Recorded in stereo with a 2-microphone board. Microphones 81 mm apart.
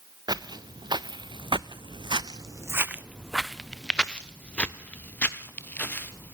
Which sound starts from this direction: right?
Footsteps, at 0.3 s.